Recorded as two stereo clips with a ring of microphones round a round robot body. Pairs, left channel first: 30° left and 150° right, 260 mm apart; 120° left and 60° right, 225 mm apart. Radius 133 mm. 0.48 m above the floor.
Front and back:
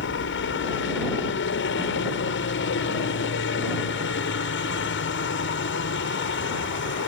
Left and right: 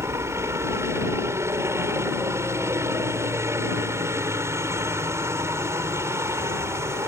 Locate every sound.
0.0 s a helicopter: 15° left